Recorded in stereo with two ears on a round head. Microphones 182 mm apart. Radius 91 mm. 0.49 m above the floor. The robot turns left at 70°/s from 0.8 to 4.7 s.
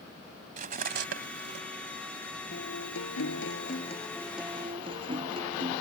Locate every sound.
0.6 s cutlery clinking: 40° right (ahead or behind); by 1.6 s 75° right (ahead or behind)
2.5 s a guitar: 130° left; by 5.8 s 25° right